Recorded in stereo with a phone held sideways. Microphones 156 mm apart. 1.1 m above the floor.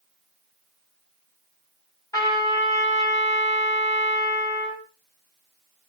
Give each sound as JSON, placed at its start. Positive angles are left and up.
{"t": 2.1, "sound": "a trumpet", "side_deg": 25, "distance_m": 6.5}